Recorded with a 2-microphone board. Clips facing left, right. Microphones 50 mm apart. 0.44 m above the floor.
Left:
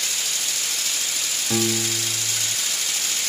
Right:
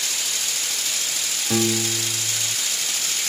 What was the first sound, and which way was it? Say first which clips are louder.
A piano: right 2 dB; 5° right (ahead or behind).